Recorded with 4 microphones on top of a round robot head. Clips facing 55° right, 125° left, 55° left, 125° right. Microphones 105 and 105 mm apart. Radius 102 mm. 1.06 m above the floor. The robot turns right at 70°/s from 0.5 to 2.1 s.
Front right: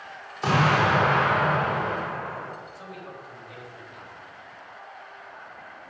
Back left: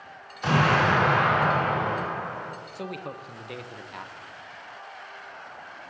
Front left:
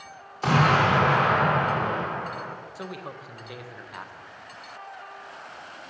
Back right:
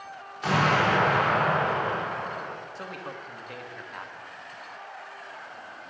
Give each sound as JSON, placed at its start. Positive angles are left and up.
{"t": 0.4, "sound": "an explosion", "azimuth_deg": -5, "distance_m": 3.5}
{"t": 2.8, "sound": "a man speaking", "azimuth_deg": 135, "distance_m": 0.8}